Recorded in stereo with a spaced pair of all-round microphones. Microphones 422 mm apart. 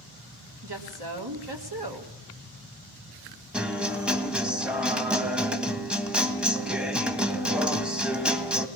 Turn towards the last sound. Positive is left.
turn(degrees=0)  # may be behind; listen again after turning